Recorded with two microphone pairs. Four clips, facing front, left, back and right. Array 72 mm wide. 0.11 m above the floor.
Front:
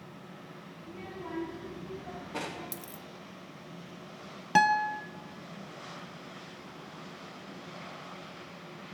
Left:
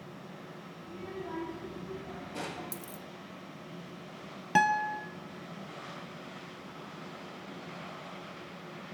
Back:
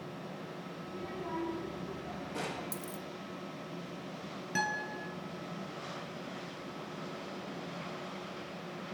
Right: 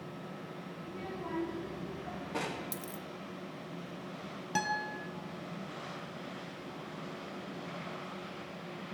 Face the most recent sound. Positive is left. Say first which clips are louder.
# left 8 dB, front 11 dB
turn(degrees=35)